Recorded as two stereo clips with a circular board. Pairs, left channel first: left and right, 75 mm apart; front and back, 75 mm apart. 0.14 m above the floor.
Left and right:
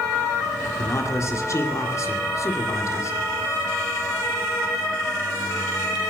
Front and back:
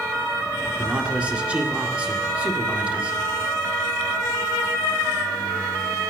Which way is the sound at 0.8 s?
115° left.